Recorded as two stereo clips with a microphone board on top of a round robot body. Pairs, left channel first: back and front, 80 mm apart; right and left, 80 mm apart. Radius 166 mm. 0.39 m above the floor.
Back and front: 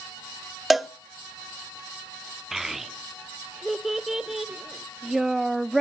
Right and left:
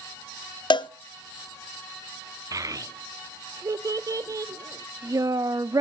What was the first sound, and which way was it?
A cowbell, 90° right.